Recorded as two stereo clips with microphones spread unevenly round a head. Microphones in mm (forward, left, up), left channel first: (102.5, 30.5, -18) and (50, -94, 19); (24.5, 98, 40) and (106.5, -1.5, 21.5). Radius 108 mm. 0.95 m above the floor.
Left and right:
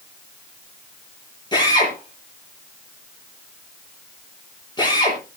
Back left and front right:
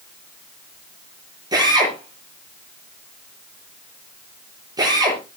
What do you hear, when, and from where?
1.5 s a drill: 10° left, 9.5 m